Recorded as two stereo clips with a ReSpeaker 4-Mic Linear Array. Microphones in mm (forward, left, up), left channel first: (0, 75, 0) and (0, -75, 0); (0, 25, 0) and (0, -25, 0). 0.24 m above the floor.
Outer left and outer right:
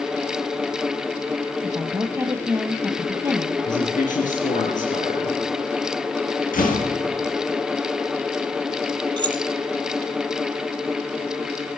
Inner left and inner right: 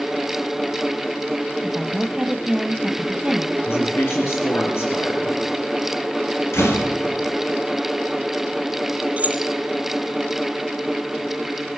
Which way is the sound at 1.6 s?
15° right (ahead or behind).